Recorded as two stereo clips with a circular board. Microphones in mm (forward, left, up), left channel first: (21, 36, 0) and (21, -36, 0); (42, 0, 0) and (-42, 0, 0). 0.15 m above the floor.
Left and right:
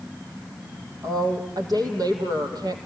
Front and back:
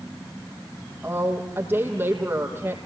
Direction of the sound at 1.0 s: 115° right.